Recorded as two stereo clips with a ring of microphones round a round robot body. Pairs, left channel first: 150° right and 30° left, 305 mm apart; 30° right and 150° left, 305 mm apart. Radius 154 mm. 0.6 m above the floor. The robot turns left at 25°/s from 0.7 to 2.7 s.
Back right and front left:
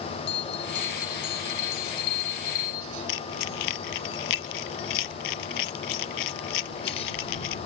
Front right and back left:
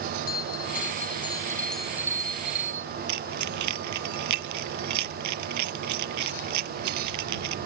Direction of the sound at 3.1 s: 175° right.